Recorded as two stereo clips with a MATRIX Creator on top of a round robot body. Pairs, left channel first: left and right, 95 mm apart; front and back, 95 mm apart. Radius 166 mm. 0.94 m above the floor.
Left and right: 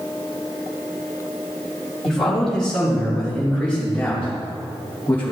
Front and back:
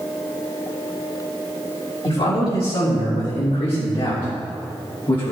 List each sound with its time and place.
2.0 s a man speaking: 5° left, 4 m; by 5.3 s 20° left, 2.5 m